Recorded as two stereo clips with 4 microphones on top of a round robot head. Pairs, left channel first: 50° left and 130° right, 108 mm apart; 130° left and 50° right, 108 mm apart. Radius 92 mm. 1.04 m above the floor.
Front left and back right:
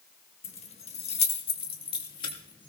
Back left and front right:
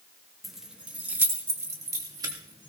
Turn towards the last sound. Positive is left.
turn(degrees=0)